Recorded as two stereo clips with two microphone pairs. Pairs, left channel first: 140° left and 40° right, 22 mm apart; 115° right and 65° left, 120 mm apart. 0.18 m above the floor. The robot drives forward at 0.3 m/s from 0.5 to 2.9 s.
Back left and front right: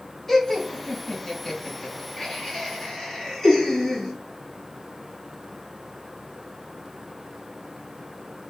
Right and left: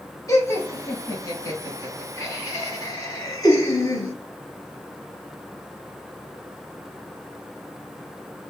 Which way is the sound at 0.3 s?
155° right.